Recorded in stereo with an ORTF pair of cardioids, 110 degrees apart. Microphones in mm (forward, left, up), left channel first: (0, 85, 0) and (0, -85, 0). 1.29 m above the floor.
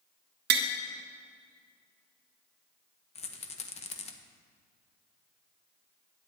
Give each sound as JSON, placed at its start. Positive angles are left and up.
{"t": 0.5, "sound": "tapping", "azimuth_deg": -70, "distance_m": 0.8}
{"t": 3.1, "sound": "a rattle", "azimuth_deg": 35, "distance_m": 0.8}